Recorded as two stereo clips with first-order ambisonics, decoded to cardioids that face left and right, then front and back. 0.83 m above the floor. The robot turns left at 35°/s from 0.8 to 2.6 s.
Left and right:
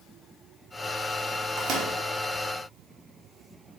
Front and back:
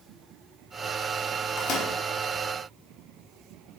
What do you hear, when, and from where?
1.6 s a microwave: 35° right, 0.6 m; by 1.9 s 50° right, 0.6 m